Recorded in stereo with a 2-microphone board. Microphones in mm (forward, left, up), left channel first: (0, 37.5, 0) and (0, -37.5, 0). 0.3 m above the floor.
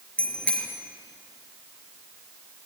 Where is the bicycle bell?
15° left (ahead or behind), 4 m.